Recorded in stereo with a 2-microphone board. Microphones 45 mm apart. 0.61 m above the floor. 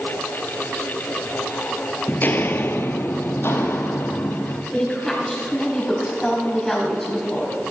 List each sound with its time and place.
2.1 s footsteps: 40° left (ahead or behind), 0.7 m; by 4.6 s 65° left (ahead or behind), 2.0 m
4.7 s a woman speaking: 10° left (ahead or behind), 4.5 m